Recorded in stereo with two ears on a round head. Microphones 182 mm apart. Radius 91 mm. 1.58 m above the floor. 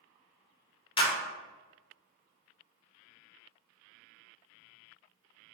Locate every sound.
1.0 s a clap: 25° left (ahead or behind), 0.6 m